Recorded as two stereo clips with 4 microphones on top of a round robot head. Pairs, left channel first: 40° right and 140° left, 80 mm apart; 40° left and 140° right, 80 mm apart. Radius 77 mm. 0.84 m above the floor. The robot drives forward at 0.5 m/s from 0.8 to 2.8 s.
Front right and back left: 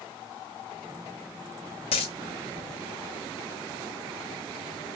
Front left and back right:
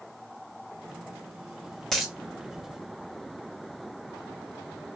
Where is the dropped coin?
45° right, 0.5 m; by 2.1 s 60° right, 0.5 m.